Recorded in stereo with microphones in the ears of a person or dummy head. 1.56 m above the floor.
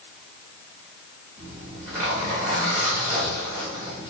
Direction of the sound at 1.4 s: 15° right (ahead or behind).